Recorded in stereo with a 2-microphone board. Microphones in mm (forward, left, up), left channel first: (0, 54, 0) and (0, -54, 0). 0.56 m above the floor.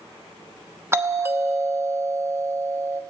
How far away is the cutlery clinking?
No cutlery clinking in this recording.